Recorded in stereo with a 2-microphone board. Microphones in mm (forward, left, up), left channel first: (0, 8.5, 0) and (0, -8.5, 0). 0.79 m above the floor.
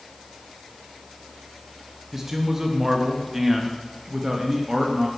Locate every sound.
2.1 s a man speaking: 15° right (ahead or behind), 0.6 m